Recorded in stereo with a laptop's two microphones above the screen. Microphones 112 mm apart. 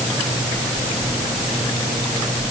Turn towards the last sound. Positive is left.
No sound to turn to.